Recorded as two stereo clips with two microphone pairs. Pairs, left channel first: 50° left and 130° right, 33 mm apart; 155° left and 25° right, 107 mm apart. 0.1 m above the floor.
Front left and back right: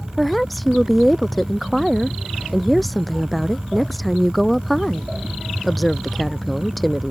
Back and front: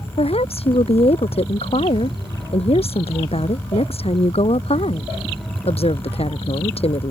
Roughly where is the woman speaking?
Behind left.